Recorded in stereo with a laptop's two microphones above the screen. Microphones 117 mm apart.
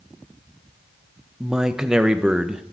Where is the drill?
No drill in this recording.